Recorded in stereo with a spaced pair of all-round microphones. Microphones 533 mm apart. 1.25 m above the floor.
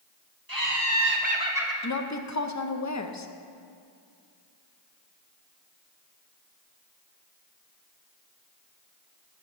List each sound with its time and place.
0.5 s laughter: 40° right (ahead or behind), 1.6 m; by 1.7 s centre (ahead or behind), 1.5 m
1.8 s a woman speaking: 35° left (ahead or behind), 0.6 m